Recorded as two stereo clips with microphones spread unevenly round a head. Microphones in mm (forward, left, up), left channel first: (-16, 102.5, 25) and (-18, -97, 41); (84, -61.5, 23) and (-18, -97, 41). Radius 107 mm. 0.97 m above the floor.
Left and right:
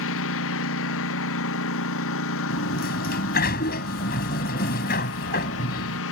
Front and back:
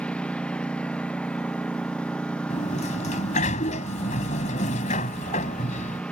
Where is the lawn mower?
105° left.